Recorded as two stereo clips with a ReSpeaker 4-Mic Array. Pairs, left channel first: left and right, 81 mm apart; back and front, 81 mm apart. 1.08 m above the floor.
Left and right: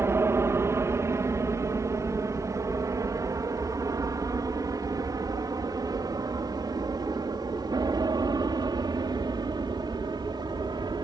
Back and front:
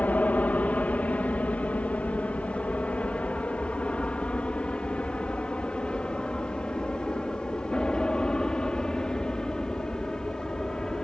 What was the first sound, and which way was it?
An aircraft, 120° right.